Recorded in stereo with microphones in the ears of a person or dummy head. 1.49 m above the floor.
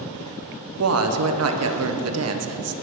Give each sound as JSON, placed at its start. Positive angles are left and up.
{"t": 0.8, "sound": "a woman speaking", "side_deg": -75, "distance_m": 0.8}